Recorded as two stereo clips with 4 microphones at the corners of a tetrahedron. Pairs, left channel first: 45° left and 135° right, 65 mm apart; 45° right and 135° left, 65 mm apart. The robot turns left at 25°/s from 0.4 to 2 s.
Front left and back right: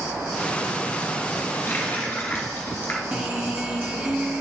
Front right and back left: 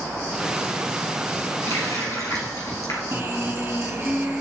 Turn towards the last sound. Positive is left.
turn(degrees=160)